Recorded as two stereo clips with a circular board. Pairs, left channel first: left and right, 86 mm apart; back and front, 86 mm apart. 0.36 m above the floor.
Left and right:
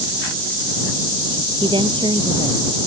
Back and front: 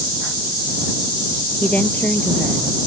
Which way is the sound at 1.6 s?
105° right.